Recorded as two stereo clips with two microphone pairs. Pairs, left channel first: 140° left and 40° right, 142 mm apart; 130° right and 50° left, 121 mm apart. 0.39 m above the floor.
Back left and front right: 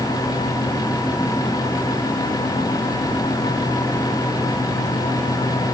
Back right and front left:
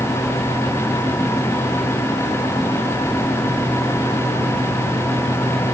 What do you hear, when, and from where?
Only background noise.